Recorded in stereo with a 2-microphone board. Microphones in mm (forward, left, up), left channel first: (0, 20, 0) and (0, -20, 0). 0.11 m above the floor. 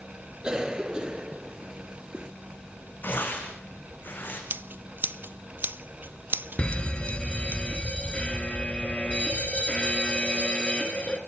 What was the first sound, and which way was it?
A cough, 20° right (ahead or behind).